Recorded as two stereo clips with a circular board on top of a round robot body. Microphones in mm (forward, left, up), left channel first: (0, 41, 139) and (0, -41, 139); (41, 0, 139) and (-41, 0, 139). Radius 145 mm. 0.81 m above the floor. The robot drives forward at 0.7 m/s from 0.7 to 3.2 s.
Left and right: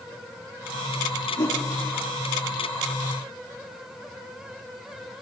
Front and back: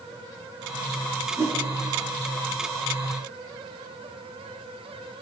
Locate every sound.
1.4 s a whoosh: 125° left, 8 m; by 1.6 s 130° left, 8.5 m